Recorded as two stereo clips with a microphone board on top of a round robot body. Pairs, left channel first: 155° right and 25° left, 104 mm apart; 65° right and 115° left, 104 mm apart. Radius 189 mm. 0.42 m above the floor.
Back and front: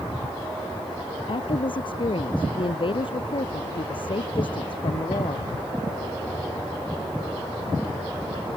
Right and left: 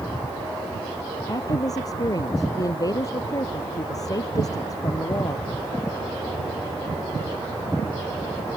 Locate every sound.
1.3 s a woman speaking: 120° right